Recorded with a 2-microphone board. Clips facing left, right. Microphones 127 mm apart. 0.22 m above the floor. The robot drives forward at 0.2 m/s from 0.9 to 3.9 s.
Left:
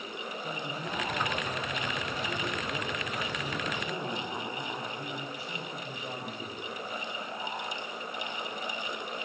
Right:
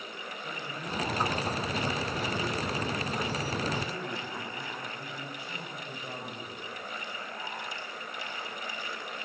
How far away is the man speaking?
About 6.5 m.